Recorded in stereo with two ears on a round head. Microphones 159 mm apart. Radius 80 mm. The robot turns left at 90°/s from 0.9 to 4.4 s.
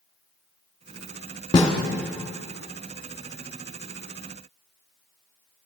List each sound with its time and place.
1.5 s a snare drum: 25° left (ahead or behind), 1.3 m; by 1.7 s 15° left (ahead or behind), 1.3 m